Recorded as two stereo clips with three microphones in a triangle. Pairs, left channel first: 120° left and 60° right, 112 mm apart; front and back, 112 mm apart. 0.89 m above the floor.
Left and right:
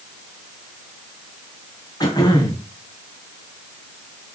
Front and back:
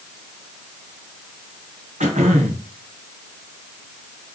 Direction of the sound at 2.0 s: 175° left.